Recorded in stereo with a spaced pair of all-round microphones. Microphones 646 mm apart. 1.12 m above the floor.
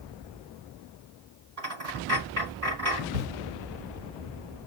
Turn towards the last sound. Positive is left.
turn(degrees=-60)  # may be behind; listen again after turning